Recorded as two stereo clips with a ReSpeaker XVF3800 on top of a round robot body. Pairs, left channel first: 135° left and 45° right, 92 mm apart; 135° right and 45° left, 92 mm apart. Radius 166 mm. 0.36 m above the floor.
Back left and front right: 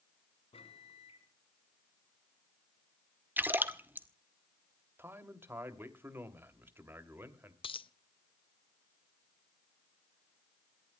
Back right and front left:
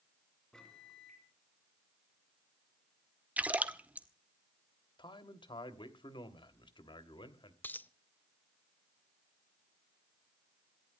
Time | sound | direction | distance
0.5 | a microwave | 140° left | 4 m
3.4 | a splash | 10° right | 1.6 m
5.0 | a man speaking | 110° right | 2.5 m
7.6 | a dropped coin | 155° left | 0.9 m